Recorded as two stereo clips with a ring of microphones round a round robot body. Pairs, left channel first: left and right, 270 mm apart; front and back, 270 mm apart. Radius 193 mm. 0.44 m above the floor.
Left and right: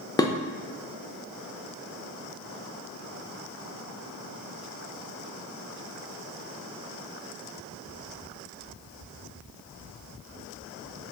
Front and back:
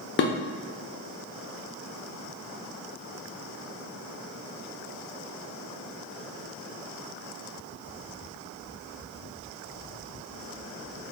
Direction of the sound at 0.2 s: 15° left.